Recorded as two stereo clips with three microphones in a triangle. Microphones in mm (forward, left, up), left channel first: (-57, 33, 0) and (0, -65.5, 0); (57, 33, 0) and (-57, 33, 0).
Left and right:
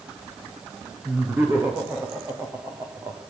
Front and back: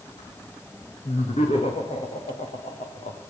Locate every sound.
1.1 s laughter: 15° left, 7 m; by 3.2 s straight ahead, 5 m